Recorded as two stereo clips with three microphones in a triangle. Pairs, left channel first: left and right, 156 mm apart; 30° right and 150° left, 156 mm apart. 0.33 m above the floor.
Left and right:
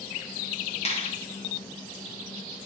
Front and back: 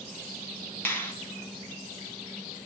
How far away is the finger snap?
About 2.5 m.